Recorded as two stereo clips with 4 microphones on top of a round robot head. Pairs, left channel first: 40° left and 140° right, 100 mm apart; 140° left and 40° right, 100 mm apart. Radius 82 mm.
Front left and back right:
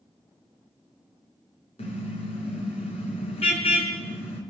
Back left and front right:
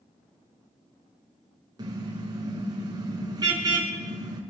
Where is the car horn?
15° left, 5.5 m.